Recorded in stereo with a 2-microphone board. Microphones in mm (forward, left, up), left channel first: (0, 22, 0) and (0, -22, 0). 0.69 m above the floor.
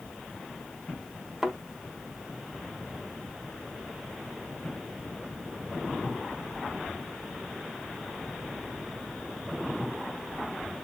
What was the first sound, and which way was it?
A thud, centre (ahead or behind).